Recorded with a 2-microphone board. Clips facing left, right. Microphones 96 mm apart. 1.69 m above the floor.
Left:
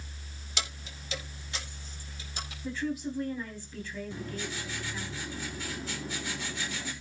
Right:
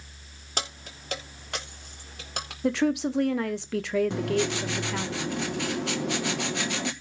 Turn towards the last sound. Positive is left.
turn(degrees=-75)  # may be behind; listen again after turning